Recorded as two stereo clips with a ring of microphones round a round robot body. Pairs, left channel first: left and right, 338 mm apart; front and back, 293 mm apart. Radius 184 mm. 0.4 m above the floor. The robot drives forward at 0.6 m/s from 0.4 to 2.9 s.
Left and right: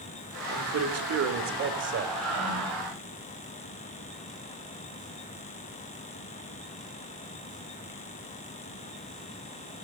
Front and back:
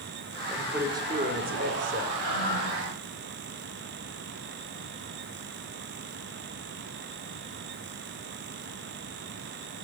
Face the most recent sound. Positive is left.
turn(degrees=175)